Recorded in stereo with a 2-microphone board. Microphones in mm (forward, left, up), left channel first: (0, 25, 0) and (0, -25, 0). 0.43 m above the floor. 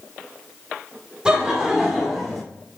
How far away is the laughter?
About 1.4 m.